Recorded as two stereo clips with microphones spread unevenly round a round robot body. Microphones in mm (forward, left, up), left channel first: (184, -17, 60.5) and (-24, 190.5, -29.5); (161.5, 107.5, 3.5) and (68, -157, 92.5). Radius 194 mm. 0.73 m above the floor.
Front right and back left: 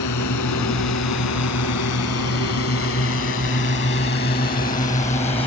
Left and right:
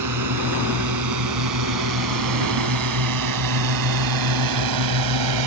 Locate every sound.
0.0 s a drone: 95° right; by 5.5 s 125° right